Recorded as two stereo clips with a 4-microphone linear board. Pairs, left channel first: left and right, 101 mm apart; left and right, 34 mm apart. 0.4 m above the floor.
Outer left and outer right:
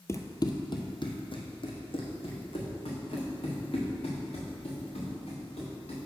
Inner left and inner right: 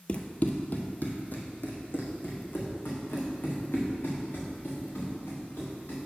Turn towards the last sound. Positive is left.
turn(degrees=75)  # may be behind; listen again after turning